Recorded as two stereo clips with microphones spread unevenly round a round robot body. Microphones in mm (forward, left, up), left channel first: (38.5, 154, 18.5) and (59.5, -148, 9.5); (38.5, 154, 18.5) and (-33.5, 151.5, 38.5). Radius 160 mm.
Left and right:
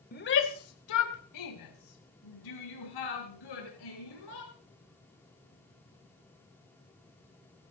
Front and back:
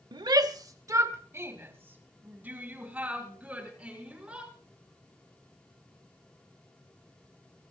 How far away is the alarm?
I don't hear an alarm.